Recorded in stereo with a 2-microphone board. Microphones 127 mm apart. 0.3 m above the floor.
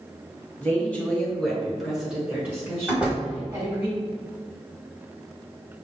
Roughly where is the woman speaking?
Centre.